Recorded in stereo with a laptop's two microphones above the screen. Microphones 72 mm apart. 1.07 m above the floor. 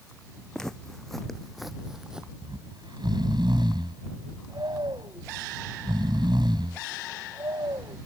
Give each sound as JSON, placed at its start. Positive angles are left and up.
{"t": 0.5, "sound": "footsteps", "side_deg": 5}
{"t": 2.4, "sound": "snoring", "side_deg": -80}